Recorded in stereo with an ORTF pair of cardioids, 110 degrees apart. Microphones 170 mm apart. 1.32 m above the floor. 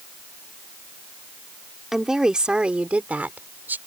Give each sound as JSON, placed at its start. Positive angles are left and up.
{"t": 1.9, "sound": "a woman speaking", "azimuth_deg": -5}